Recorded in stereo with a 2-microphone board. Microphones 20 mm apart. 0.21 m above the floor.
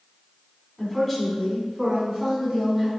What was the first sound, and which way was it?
A woman speaking, 5° left (ahead or behind).